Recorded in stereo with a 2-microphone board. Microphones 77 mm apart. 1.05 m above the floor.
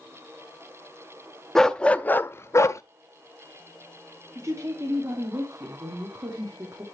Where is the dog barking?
5° left (ahead or behind), 0.6 m; by 2.8 s 40° left (ahead or behind), 0.6 m.